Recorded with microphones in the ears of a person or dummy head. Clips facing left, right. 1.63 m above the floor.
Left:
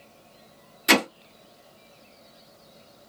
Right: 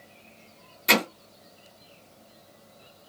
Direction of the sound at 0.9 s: 5° left (ahead or behind).